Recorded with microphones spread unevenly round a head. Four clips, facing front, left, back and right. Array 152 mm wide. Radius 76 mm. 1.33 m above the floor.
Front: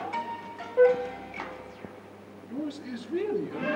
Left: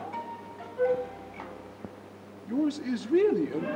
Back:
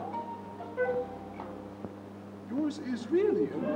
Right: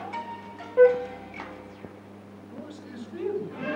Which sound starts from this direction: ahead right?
A flute, at 0.8 s.